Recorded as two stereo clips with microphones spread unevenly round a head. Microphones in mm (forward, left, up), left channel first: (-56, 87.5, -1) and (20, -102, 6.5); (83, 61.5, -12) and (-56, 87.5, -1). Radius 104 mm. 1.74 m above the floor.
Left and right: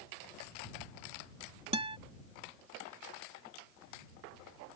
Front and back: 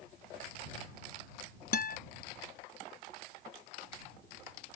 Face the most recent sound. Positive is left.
turn(degrees=-5)